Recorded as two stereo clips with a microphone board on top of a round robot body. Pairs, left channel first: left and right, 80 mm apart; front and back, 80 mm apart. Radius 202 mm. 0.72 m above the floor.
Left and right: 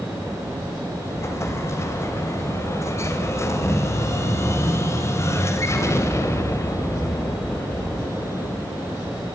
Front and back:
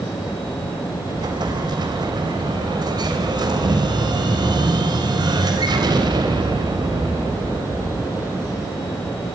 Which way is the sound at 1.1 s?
145° left.